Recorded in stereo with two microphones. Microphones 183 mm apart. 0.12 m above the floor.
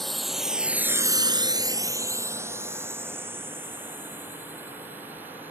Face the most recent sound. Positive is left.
turn(degrees=-10)  # may be behind; listen again after turning